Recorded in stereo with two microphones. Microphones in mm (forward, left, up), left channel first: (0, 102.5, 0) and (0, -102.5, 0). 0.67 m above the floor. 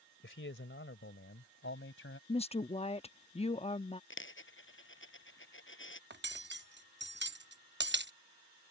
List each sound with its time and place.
0.2 s a man speaking: 70° left (ahead or behind); by 2.2 s 80° left
2.3 s a woman speaking: 30° left (ahead or behind)
4.1 s a dropped coin: 75° left (ahead or behind)
6.1 s cutlery clinking: 60° right (ahead or behind)